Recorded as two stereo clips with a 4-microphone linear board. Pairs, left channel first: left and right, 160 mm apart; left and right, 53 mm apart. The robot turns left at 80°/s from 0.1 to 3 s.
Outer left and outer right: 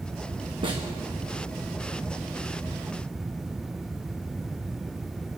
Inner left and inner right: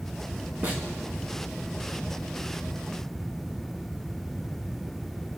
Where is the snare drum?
35° right (ahead or behind), 2.0 m; by 0.8 s 15° right (ahead or behind), 2.0 m.